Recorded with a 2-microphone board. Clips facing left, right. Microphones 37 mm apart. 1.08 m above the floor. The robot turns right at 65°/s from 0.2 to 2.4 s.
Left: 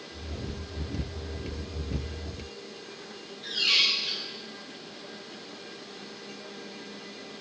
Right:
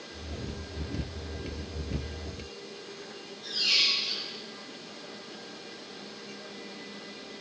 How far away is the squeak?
About 1.9 m.